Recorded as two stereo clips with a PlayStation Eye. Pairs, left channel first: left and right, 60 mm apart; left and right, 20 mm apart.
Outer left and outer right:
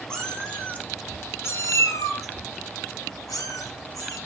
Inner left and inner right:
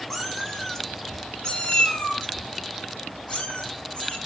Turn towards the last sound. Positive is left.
turn(degrees=80)